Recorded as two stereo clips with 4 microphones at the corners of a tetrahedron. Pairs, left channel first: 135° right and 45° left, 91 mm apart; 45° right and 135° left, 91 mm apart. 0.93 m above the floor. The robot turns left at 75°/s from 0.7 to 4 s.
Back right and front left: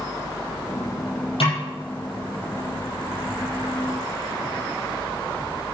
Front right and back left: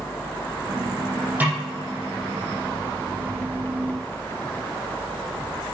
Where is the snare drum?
155° right, 6 m; by 1.6 s 170° right, 6 m.